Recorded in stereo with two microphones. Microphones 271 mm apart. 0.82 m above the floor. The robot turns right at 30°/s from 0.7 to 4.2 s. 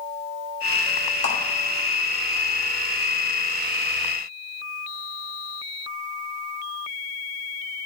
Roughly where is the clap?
Right.